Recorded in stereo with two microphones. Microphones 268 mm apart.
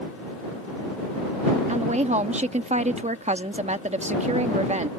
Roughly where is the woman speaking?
Right.